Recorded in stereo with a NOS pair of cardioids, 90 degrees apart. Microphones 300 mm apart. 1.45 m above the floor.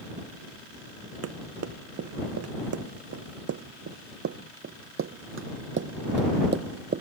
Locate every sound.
1.2 s running footsteps: 55° right; by 7.0 s 40° right